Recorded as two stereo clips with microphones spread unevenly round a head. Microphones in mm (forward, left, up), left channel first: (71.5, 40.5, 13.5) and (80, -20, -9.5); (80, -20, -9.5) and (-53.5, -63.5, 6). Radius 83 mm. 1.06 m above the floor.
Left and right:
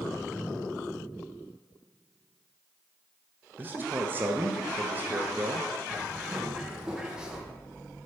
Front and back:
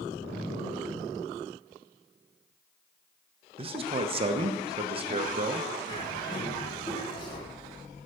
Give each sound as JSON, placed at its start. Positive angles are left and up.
{"t": 3.6, "sound": "a man speaking", "azimuth_deg": -115, "distance_m": 0.7}
{"t": 5.9, "sound": "a bird", "azimuth_deg": -25, "distance_m": 1.2}